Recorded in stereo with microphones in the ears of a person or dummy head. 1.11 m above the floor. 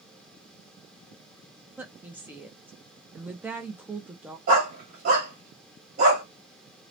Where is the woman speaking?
5° right (ahead or behind), 0.6 m.